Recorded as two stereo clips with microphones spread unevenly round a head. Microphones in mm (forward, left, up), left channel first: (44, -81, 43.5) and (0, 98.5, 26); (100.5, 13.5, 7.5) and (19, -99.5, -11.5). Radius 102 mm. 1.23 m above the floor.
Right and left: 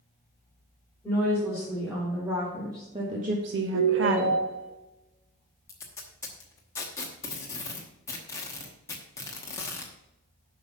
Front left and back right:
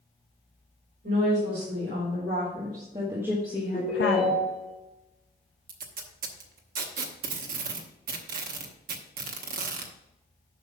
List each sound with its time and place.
1.0 s a woman speaking: 165° right, 4.5 m; by 4.4 s 70° left, 1.5 m
3.7 s a ringtone: 125° left, 2 m
5.7 s tape being pulled: 150° right, 1.0 m